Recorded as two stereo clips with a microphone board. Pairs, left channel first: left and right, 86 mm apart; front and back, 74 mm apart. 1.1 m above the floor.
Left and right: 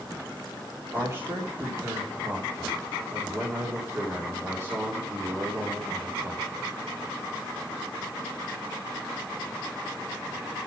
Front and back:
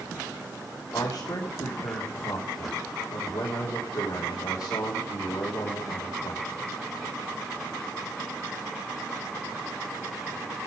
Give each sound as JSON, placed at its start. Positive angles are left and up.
{"t": 0.9, "sound": "a man speaking", "azimuth_deg": -35, "distance_m": 3.0}